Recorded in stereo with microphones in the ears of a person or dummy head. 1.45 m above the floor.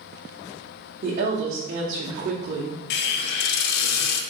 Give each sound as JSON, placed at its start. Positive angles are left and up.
{"t": 1.0, "sound": "a woman speaking", "side_deg": -45, "distance_m": 0.9}
{"t": 2.9, "sound": "a hiss", "side_deg": 55, "distance_m": 0.6}